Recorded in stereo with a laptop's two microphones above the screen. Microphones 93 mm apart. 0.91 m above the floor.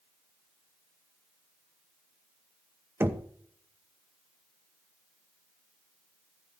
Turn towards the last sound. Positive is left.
turn(degrees=-25)  # may be behind; listen again after turning